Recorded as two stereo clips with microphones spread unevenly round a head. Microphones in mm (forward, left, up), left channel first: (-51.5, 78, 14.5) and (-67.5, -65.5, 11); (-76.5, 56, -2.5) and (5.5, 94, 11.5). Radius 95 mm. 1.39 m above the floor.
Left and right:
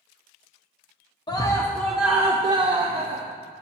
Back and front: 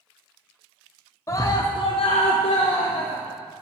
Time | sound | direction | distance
1.3 | a scream | 145° left | 0.8 m